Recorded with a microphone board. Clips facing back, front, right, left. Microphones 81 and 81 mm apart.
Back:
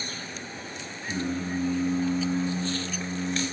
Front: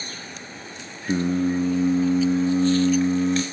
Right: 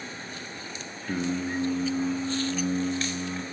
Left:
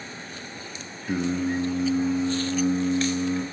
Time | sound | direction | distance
1.1 | singing | 10° left | 0.6 m